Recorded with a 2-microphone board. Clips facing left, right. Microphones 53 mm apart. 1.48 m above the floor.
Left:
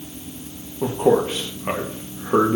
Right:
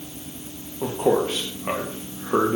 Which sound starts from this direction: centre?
A man speaking, at 0.8 s.